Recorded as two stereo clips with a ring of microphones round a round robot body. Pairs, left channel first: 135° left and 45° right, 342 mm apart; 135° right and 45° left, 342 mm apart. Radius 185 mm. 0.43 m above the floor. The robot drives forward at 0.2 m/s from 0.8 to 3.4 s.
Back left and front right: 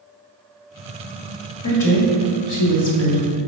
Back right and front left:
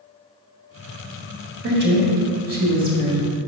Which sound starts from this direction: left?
A woman speaking, at 1.6 s.